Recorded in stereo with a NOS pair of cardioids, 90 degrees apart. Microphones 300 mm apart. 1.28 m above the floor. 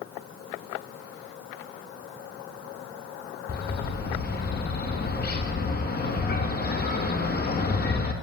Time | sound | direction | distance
3.5 | a bird | 35° left | 1.2 m